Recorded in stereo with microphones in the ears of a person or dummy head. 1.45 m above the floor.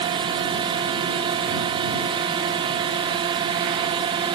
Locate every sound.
0.0 s a drone: 20° right (ahead or behind)